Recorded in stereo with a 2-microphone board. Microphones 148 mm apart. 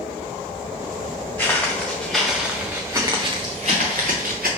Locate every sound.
1.4 s footsteps: 15° left (ahead or behind), 1.6 m; by 4.5 s 80° right, 1.1 m